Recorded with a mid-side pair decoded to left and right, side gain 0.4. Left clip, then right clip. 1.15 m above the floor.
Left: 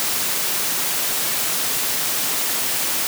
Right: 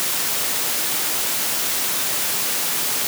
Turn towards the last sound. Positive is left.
No sound to turn to.